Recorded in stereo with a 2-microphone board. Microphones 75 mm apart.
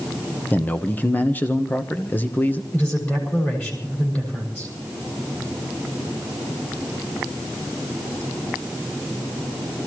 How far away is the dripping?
I don't hear dripping.